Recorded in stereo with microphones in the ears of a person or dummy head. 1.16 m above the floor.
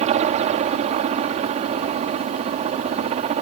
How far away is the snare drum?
No snare drum in this recording.